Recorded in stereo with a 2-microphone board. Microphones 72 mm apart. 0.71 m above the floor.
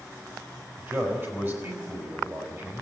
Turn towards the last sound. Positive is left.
turn(degrees=-30)  # may be behind; listen again after turning